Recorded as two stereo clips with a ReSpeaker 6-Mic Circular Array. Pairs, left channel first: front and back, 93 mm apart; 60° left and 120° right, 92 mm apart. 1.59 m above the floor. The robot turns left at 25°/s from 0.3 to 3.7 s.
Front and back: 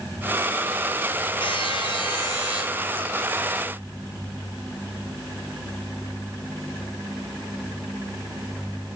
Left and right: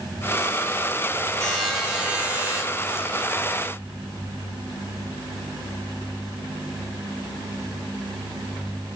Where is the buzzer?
25° right, 8.5 m; by 2.6 s 55° right, 8.5 m.